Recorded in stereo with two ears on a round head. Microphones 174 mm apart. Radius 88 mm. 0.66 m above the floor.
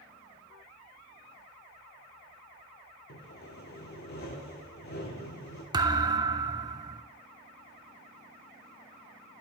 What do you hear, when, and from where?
3.1 s sawing: 55° left (ahead or behind), 1.9 m
5.7 s a thud: 20° right (ahead or behind), 0.7 m